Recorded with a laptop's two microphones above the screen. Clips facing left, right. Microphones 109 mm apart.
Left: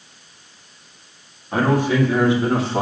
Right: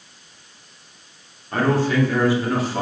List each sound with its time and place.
1.5 s a man speaking: 10° left (ahead or behind), 3 m; by 2.8 s 30° left (ahead or behind), 3 m